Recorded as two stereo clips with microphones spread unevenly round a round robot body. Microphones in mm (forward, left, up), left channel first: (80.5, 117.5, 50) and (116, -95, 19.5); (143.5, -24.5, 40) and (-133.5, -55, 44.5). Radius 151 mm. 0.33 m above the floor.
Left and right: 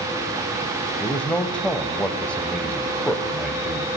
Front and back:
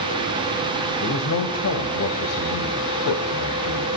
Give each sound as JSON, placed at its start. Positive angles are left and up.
{"t": 1.0, "sound": "a man speaking", "azimuth_deg": 10, "distance_m": 2.5}